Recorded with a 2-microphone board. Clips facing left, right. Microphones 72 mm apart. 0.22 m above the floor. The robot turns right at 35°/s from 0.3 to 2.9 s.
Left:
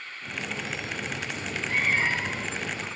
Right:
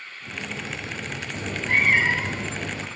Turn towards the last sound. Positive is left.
turn(degrees=-65)